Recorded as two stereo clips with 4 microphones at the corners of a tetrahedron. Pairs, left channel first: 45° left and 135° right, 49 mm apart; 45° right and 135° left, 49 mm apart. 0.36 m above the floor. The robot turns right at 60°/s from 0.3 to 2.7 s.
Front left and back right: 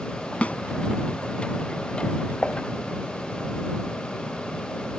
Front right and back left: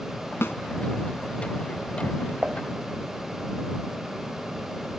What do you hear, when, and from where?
0.4 s a snare drum: 20° right; by 0.6 s 10° right
2.4 s dishes clattering: 95° left; by 2.6 s 105° left